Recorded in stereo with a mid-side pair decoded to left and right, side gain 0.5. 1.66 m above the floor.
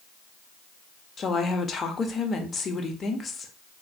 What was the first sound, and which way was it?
A woman speaking, 40° left.